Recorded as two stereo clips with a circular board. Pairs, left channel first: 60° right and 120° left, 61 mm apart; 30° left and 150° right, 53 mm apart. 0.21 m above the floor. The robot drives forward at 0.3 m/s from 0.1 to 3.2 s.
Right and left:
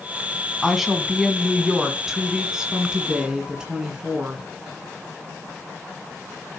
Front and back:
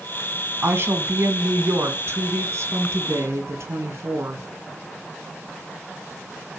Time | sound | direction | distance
0.6 | a woman speaking | 155° right | 1.4 m